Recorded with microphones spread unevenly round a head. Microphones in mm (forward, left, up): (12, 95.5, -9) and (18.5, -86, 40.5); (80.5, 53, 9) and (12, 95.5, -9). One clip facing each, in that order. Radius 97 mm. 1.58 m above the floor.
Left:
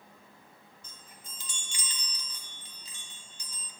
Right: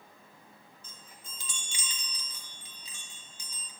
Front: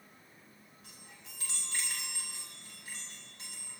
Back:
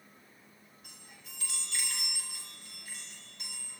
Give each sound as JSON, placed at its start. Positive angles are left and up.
{"t": 0.8, "sound": "a chime", "azimuth_deg": -105, "distance_m": 1.6}